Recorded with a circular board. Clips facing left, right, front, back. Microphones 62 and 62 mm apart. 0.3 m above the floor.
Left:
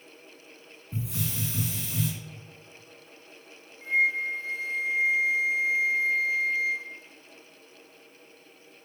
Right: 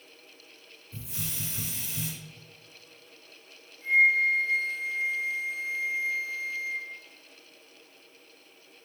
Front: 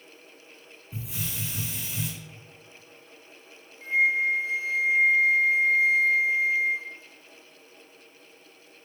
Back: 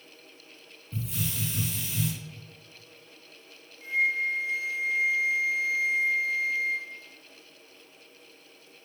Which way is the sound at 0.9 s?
80° left.